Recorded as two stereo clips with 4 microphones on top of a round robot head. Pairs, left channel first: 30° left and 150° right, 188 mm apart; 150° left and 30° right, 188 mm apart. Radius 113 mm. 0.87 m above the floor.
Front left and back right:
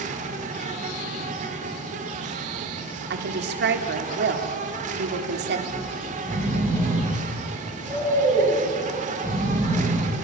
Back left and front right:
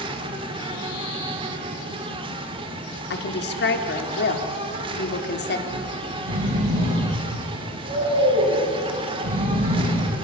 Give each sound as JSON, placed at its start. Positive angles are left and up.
{"t": 0.0, "sound": "an insect", "azimuth_deg": -95, "distance_m": 1.4}
{"t": 3.1, "sound": "a woman speaking", "azimuth_deg": 180, "distance_m": 1.9}
{"t": 5.7, "sound": "snoring", "azimuth_deg": -40, "distance_m": 8.0}